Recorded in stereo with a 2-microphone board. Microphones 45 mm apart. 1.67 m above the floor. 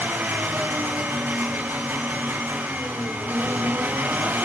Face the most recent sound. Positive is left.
turn(degrees=-70)  # may be behind; listen again after turning